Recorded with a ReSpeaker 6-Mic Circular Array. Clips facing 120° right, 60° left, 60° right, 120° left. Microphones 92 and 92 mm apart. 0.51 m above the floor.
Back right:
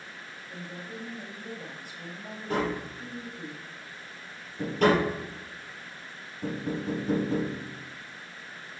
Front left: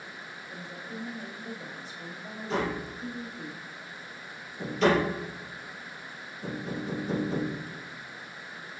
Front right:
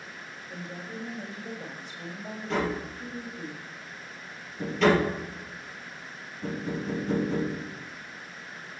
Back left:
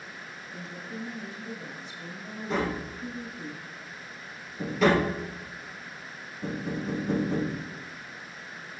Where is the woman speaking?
40° right, 1.8 m.